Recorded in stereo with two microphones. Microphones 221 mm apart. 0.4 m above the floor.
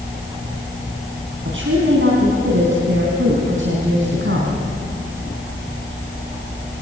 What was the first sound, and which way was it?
A woman speaking, 60° right (ahead or behind).